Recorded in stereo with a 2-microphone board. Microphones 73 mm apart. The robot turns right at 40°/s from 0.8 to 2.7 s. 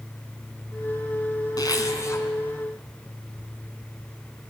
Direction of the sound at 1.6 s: 55° left (ahead or behind).